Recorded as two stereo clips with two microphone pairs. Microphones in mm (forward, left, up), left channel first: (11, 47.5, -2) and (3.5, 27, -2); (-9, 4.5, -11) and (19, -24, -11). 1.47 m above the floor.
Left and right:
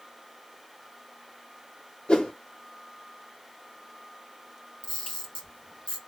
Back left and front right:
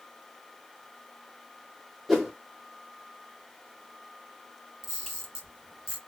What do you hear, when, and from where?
2.1 s a whoosh: 40° left, 1.1 m
4.8 s a camera shutter: 45° left, 2.0 m